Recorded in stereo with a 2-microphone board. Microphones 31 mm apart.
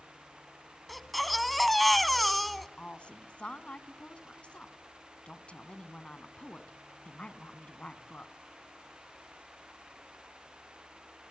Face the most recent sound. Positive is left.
turn(degrees=35)  # may be behind; listen again after turning